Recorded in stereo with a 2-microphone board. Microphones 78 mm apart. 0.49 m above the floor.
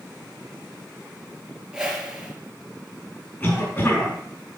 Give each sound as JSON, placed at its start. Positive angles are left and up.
{"t": 1.7, "sound": "a whoosh", "side_deg": -10, "distance_m": 3.5}
{"t": 3.4, "sound": "a cough", "side_deg": 20, "distance_m": 4.5}